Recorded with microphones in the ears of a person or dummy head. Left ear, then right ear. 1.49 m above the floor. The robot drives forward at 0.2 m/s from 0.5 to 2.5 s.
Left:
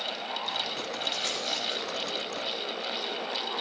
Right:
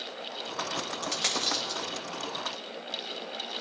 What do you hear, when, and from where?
1.0 s a dropped coin: 40° right (ahead or behind), 2 m